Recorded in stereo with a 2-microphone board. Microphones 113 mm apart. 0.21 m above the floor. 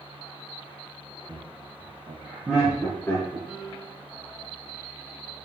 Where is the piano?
5° left (ahead or behind), 2.5 m.